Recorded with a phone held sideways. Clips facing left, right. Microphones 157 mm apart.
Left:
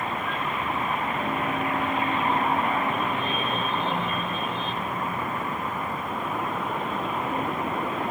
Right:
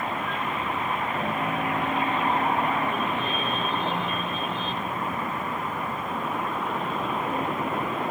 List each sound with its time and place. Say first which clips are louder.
1.1 s a piano: even; 80° right, 4.5 m